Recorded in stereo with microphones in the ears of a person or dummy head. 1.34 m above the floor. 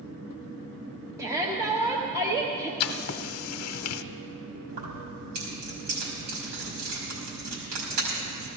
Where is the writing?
85° left, 0.7 m.